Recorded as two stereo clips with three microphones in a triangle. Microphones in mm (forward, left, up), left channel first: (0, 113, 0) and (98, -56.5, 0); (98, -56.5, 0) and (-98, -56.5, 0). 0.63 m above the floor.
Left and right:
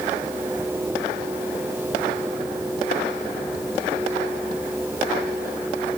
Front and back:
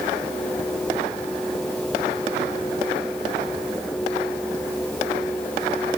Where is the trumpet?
I don't hear a trumpet.